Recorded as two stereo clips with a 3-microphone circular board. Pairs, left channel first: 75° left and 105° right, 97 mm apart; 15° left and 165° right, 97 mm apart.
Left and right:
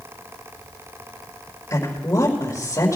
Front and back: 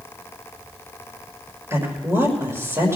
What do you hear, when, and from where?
1.7 s a woman speaking: 135° left, 6 m